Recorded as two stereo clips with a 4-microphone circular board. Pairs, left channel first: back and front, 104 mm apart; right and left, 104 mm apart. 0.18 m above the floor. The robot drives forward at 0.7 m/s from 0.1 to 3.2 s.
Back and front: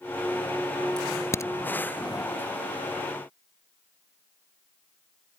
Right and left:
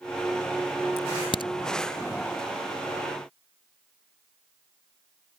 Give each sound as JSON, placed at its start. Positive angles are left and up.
{"t": 1.0, "sound": "a crack", "azimuth_deg": -95}